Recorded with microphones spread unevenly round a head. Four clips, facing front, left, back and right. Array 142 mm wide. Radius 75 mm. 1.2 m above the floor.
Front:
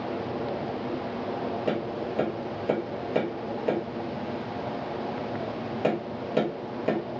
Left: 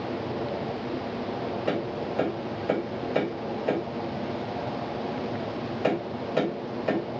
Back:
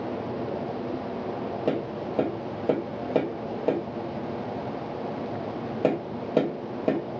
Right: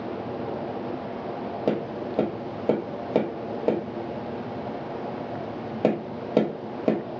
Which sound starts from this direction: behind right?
Tapping, at 1.7 s.